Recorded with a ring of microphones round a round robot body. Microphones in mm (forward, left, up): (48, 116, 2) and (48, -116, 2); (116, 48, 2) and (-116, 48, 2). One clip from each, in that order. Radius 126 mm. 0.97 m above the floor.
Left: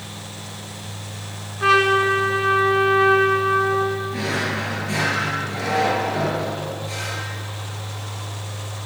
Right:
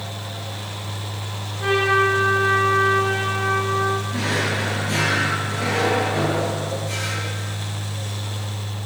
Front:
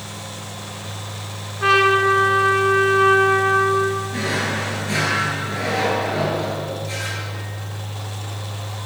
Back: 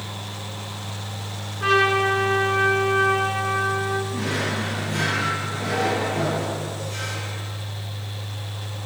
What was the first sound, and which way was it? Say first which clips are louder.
A trumpet: left 2 dB, front 4 dB; 75° left.